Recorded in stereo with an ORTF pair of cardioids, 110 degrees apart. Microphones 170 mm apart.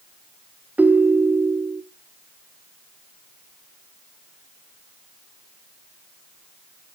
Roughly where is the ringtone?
Ahead.